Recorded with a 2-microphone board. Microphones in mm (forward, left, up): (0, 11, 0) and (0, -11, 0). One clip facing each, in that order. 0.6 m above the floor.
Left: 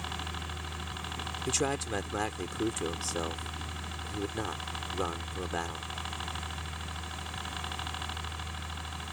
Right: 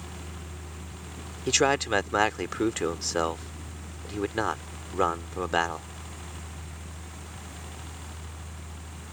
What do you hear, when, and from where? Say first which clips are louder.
0.0 s a helicopter: left 5 dB; 50° left (ahead or behind)
1.5 s a man speaking: right 9 dB; 45° right (ahead or behind)